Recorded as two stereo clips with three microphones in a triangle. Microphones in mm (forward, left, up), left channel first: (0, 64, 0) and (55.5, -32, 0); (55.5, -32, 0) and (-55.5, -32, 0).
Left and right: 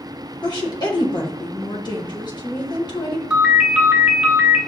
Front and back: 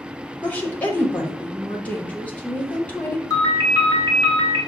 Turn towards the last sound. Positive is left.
turn(degrees=10)